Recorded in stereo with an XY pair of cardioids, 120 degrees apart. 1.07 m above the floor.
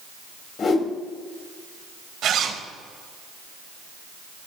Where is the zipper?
60° right, 3.5 m.